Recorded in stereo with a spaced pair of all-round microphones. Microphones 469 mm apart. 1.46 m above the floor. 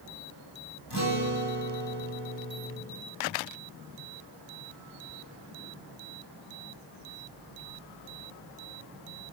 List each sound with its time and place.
0.9 s a guitar: 55° left (ahead or behind), 7 m